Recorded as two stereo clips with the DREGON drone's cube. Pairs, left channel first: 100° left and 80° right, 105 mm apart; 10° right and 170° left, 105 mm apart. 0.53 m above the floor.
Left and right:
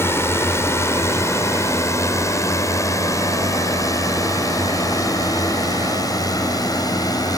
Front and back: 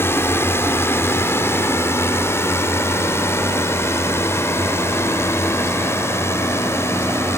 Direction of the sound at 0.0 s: 45° left.